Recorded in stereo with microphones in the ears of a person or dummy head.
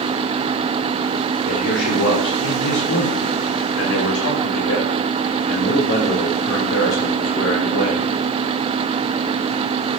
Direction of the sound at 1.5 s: 70° left (ahead or behind).